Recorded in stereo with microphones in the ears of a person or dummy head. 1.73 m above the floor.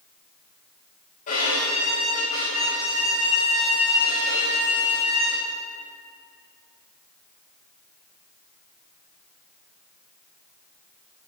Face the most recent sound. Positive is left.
turn(degrees=40)  # may be behind; listen again after turning